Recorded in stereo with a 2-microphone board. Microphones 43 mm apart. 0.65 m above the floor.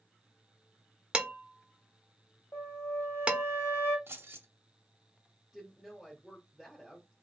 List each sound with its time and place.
1.1 s dishes clattering: 25° right (ahead or behind), 0.8 m
2.5 s a flute: 80° left, 1.6 m
4.1 s keys jangling: 65° right (ahead or behind), 0.8 m
5.5 s a woman speaking: centre (ahead or behind), 1.4 m